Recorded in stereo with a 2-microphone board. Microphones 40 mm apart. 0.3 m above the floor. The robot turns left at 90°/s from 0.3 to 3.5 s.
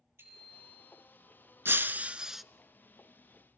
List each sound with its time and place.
0.2 s a bicycle bell: 85° right, 6 m; by 1.0 s 150° right, 6 m
1.6 s breaking glass: 110° right, 0.6 m; by 2.4 s straight behind, 0.6 m